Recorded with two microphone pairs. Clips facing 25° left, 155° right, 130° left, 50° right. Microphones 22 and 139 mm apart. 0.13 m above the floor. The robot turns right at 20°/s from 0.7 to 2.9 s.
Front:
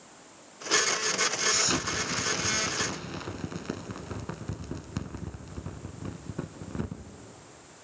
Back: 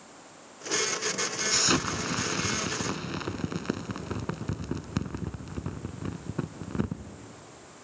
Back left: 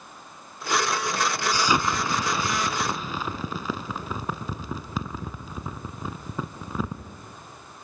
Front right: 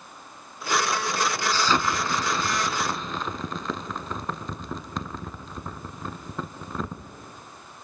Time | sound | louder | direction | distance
1.5 | an explosion | back 2 dB, back left 1 dB | 175° left | 1.1 m